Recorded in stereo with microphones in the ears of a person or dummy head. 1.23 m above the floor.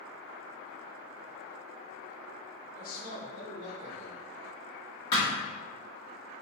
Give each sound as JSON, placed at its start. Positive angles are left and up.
{"t": 2.8, "sound": "a man speaking", "side_deg": 50, "distance_m": 1.0}
{"t": 5.1, "sound": "a thud", "side_deg": 30, "distance_m": 1.1}